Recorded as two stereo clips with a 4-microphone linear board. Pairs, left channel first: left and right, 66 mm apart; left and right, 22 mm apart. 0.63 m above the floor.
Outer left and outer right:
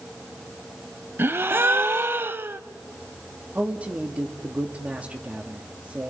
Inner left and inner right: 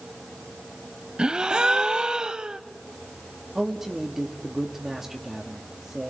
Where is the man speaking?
20° right (ahead or behind), 1.2 m.